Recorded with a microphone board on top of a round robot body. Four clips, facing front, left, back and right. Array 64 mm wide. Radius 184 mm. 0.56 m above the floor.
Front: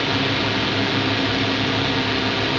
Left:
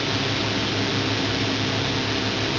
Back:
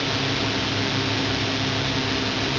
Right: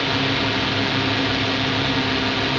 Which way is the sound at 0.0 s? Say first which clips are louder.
Right 4 dB, front 4 dB; 45° right.